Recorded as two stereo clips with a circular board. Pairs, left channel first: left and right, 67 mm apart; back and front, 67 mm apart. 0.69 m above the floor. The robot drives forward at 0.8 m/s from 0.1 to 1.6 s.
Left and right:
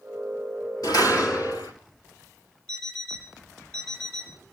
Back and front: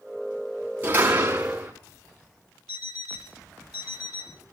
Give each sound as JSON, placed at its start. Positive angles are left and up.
{"t": 0.8, "sound": "a door slam", "azimuth_deg": 65, "distance_m": 5.0}
{"t": 2.7, "sound": "an alarm clock", "azimuth_deg": 165, "distance_m": 9.0}